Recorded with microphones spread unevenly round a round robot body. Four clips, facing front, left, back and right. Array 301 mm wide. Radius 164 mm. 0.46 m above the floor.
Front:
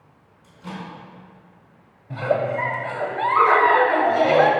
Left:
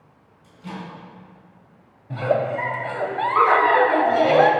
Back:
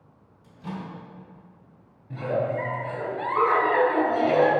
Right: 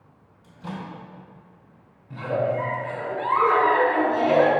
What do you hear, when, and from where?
0.4 s a microwave: 115° right, 3.5 m
2.1 s a giggle: 60° left, 1.1 m